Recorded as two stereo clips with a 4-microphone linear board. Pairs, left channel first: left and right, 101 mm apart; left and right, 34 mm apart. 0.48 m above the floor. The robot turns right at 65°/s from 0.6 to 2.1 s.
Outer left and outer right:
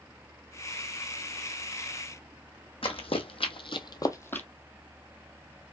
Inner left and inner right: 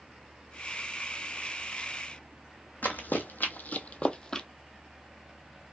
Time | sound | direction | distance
2.8 | running footsteps | 65° left (ahead or behind) | 1.3 m